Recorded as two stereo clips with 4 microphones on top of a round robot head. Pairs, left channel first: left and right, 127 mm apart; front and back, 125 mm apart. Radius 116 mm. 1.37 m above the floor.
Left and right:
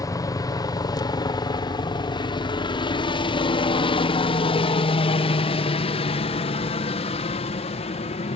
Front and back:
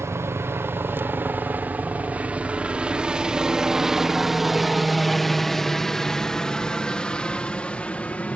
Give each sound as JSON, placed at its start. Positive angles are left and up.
{"t": 0.0, "sound": "a helicopter", "azimuth_deg": 125}